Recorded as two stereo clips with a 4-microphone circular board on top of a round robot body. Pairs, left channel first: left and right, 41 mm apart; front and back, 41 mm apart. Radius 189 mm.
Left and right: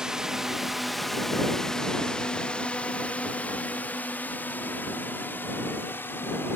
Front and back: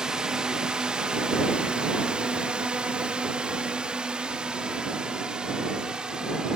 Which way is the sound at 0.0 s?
135° right.